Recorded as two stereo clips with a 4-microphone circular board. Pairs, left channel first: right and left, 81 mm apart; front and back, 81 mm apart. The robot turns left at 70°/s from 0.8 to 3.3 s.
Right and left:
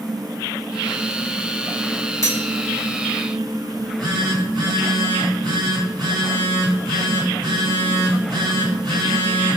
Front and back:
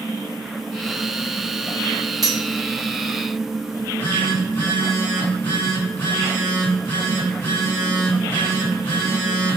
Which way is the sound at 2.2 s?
140° right.